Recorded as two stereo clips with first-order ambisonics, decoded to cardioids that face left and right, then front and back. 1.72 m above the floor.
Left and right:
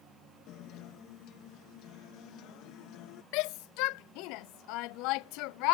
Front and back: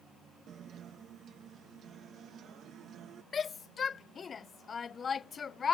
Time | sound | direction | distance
0.5 | a guitar | 125° left | ?
3.3 | a shout | 70° left | ?